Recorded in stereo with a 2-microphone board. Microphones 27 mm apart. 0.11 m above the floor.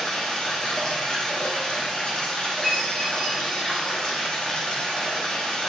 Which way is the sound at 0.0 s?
30° left (ahead or behind).